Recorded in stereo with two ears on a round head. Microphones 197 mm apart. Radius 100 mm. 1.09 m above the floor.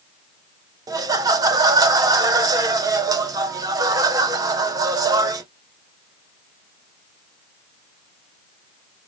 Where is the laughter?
15° right (ahead or behind), 0.5 m.